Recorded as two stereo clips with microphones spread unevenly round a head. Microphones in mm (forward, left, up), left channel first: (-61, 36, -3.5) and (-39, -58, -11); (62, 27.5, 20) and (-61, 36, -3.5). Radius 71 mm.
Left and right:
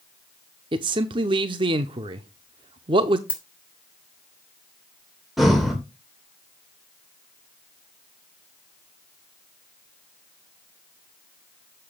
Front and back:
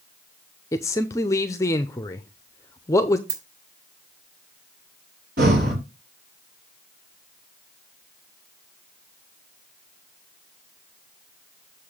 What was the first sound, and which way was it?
A man speaking, 55° right.